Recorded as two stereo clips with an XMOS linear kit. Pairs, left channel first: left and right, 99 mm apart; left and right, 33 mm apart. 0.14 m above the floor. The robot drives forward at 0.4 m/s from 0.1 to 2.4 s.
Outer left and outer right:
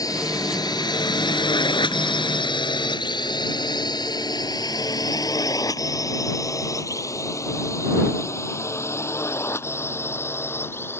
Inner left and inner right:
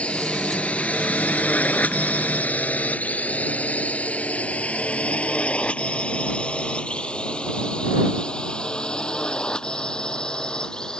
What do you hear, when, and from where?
0.0 s a drone: 40° left (ahead or behind); by 11.0 s 25° left (ahead or behind)